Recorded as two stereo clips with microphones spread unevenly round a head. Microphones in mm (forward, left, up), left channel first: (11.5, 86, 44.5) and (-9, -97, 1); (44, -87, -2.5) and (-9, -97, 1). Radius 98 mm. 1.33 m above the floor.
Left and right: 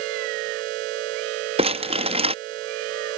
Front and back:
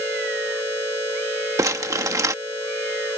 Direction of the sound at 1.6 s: 160° right.